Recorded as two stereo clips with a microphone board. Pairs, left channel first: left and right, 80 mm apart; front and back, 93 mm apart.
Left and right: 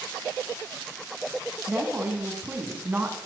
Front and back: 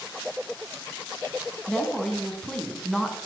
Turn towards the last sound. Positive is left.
turn(degrees=-75)